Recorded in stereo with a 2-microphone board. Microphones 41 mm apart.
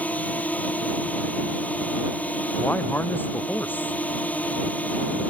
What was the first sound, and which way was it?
A drone, 40° left (ahead or behind).